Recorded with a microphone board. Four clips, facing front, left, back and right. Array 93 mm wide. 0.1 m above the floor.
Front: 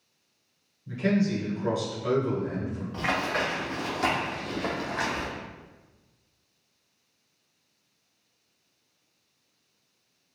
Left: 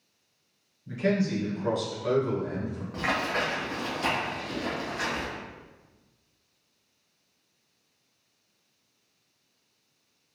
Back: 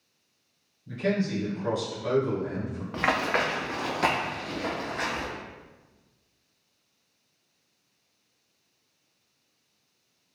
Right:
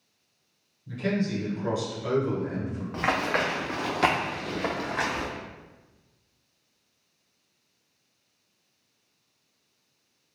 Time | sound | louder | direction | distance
0.9 | a man speaking | left 2 dB, front 2 dB | 65° left | 1.1 m
2.9 | running footsteps | right 3 dB, back 3 dB | 160° right | 0.9 m